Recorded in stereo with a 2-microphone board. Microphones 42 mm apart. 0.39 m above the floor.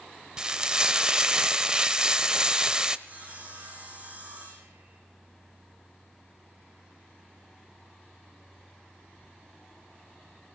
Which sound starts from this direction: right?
Sawing, at 3.1 s.